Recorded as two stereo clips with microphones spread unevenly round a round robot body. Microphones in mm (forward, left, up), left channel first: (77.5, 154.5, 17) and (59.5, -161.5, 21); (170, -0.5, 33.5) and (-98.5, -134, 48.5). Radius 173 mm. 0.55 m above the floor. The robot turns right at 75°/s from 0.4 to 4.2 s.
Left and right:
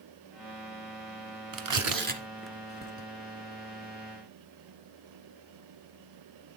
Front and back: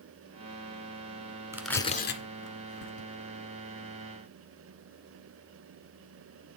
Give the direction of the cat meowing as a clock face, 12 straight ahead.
No cat meowing in this recording.